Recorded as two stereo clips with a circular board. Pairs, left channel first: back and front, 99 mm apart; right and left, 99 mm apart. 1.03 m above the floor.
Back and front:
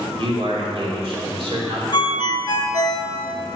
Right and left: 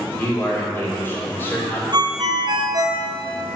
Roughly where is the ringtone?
Behind left.